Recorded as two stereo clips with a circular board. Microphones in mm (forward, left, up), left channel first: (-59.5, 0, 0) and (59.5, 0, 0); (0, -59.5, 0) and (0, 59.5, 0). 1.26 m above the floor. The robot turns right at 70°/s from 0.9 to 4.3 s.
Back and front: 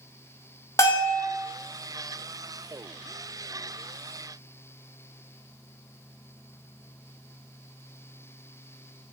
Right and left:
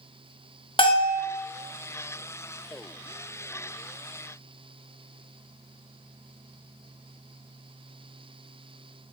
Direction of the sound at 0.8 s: 120° right.